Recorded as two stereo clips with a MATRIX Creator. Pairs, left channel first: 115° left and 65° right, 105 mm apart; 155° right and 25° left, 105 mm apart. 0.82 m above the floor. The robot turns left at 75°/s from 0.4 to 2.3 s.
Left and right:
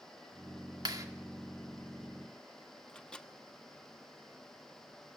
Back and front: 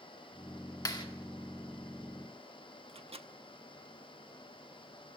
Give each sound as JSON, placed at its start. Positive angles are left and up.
{"t": 0.8, "sound": "a clap", "azimuth_deg": -110, "distance_m": 1.9}
{"t": 2.9, "sound": "a microwave", "azimuth_deg": 30, "distance_m": 0.9}